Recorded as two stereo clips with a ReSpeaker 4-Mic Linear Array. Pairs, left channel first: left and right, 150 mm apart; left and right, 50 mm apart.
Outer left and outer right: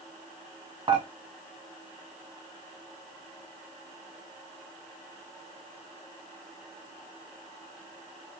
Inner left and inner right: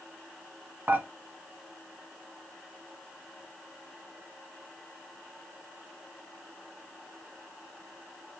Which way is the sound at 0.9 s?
35° right (ahead or behind).